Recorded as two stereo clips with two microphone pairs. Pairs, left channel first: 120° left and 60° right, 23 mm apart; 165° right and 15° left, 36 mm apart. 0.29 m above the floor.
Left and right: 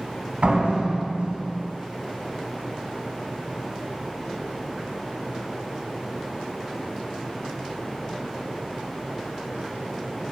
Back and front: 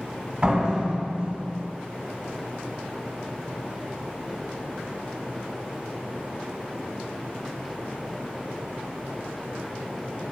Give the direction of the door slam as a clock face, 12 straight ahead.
1 o'clock.